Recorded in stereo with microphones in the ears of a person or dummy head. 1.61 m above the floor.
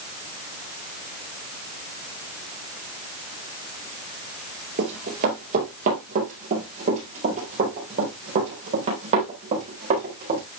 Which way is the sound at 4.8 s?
35° right (ahead or behind).